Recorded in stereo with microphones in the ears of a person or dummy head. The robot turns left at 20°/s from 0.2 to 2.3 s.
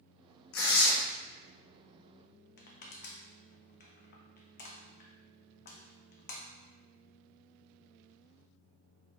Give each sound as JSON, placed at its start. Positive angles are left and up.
{"t": 0.5, "sound": "tearing paper", "side_deg": 70, "distance_m": 0.8}
{"t": 2.6, "sound": "crushing", "side_deg": 50, "distance_m": 0.5}